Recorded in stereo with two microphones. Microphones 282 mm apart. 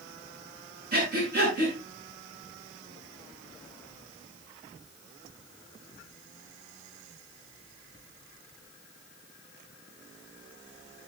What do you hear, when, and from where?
0.9 s breathing: 35° right (ahead or behind), 7.5 m